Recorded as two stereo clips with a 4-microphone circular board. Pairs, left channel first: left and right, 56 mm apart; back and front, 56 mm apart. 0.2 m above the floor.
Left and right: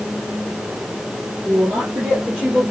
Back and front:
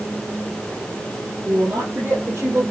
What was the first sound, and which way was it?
A woman speaking, 45° right.